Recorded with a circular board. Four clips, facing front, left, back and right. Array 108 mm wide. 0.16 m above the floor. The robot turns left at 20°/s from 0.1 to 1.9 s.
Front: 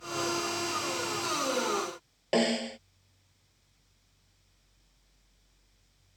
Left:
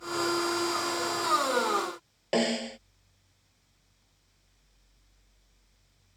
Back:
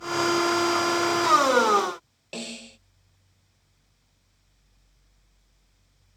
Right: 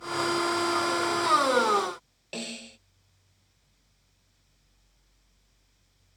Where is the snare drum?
40° left.